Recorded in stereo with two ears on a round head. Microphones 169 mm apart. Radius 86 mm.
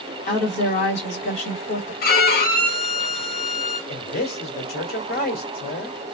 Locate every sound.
0.3 s a woman speaking: 35° left (ahead or behind), 1.8 m
2.0 s a violin: 50° left (ahead or behind), 1.2 m
3.9 s a man speaking: 50° left (ahead or behind), 1.6 m